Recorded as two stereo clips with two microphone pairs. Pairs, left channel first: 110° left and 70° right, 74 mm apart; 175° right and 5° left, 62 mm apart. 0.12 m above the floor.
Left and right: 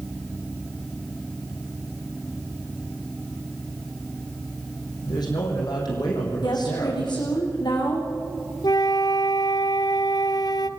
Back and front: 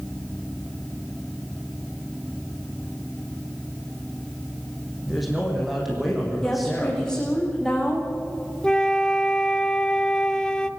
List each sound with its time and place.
5.0 s a man speaking: 95° left, 6.5 m
6.4 s a woman speaking: 110° left, 8 m
8.6 s a flute: 110° left, 0.9 m